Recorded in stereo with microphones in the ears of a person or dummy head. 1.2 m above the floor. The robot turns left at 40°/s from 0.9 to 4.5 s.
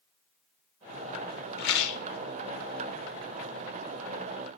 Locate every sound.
1.6 s a rattle: 60° left (ahead or behind), 0.9 m; by 2.0 s 75° left (ahead or behind), 0.9 m